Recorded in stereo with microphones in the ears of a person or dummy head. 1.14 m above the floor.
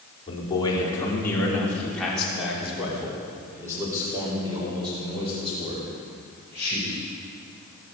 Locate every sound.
0.3 s a man speaking: 30° left (ahead or behind), 3.5 m; by 7.0 s 35° right (ahead or behind), 6.5 m